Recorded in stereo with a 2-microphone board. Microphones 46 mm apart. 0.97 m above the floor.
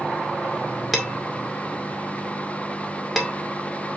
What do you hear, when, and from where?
0.9 s dishes clattering: centre (ahead or behind), 1.9 m